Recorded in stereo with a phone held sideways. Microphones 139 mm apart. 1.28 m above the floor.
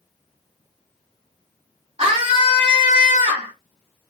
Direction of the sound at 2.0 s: 50° right (ahead or behind).